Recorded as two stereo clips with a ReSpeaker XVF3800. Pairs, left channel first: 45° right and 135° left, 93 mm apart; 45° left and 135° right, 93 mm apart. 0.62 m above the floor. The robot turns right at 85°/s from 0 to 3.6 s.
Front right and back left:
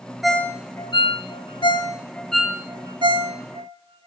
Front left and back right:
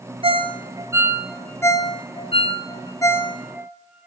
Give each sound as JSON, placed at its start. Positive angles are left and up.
{"t": 0.2, "sound": "a ringtone", "azimuth_deg": -135, "distance_m": 0.8}